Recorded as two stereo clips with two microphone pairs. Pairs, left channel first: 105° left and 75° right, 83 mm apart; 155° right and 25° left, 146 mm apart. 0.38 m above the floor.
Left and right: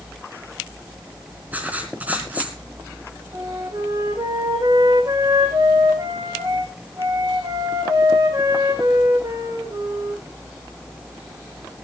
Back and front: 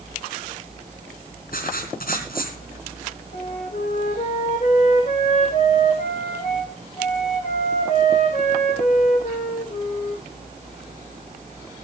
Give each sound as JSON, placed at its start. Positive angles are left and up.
{"t": 1.5, "sound": "writing", "azimuth_deg": -145, "distance_m": 3.5}
{"t": 3.3, "sound": "a flute", "azimuth_deg": -115, "distance_m": 4.0}